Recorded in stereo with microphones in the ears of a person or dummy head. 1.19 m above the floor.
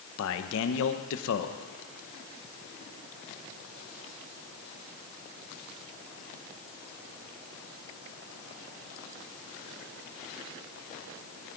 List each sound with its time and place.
0.2 s a man speaking: 75° left (ahead or behind), 0.9 m